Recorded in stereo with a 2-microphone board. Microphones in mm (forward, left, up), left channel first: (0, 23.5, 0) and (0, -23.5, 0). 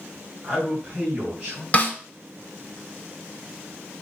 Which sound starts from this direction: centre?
A man speaking, at 0.4 s.